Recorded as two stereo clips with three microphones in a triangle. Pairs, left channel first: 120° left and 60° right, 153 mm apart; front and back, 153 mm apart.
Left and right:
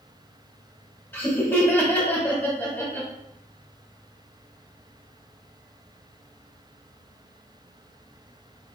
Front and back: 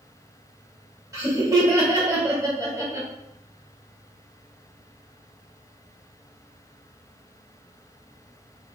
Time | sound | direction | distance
1.1 | laughter | 170° left | 0.9 m